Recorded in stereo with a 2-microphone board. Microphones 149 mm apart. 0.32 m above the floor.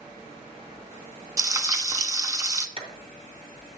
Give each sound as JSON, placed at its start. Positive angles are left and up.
{"t": 1.4, "sound": "frying", "side_deg": -25, "distance_m": 0.7}
{"t": 2.8, "sound": "a clap", "side_deg": -45, "distance_m": 2.0}